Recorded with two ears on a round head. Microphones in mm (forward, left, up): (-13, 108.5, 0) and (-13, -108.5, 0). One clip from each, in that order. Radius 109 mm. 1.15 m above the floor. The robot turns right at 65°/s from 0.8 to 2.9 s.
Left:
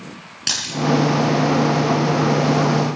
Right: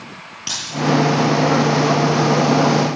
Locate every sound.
0.5 s a dropped coin: 25° left (ahead or behind), 7.5 m